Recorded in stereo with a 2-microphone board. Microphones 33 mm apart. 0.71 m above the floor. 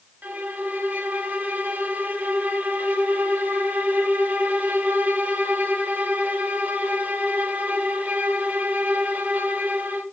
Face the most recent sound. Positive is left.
turn(degrees=-60)  # may be behind; listen again after turning